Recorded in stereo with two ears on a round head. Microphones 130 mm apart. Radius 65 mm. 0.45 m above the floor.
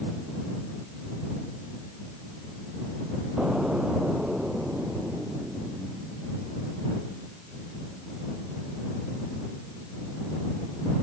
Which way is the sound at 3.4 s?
5° right (ahead or behind).